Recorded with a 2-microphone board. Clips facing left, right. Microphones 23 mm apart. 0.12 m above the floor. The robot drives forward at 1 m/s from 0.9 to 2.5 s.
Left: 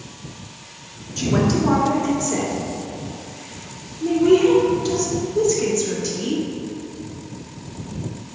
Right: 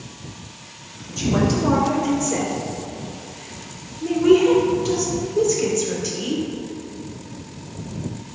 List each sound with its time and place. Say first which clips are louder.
1.2 s a woman speaking: left 1 dB; 25° left (ahead or behind), 1.7 m; by 6.4 s 20° left (ahead or behind), 2.5 m